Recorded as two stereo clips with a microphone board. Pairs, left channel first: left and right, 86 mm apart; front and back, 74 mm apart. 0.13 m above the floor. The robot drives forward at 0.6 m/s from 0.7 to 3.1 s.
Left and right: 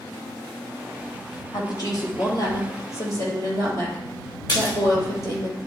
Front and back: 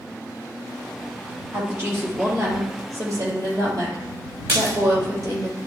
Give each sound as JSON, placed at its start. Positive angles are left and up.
{"t": 1.5, "sound": "a woman speaking", "azimuth_deg": 125, "distance_m": 2.5}
{"t": 4.5, "sound": "a splash", "azimuth_deg": 130, "distance_m": 3.0}